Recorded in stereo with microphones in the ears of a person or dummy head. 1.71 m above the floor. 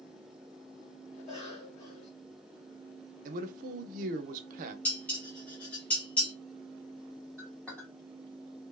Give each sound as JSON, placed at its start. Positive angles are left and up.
{"t": 1.2, "sound": "a cough", "side_deg": 35, "distance_m": 1.1}
{"t": 3.2, "sound": "a man speaking", "side_deg": -45, "distance_m": 0.5}
{"t": 4.8, "sound": "dishes clattering", "side_deg": 10, "distance_m": 1.2}
{"t": 7.4, "sound": "a clink", "side_deg": 0, "distance_m": 1.9}